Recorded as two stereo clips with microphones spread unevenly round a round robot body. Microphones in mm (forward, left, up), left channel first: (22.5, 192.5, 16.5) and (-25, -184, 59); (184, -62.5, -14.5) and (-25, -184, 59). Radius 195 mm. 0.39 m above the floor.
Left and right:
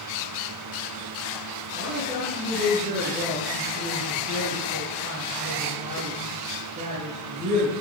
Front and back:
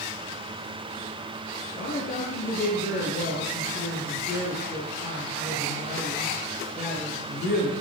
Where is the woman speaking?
25° right, 6.5 m.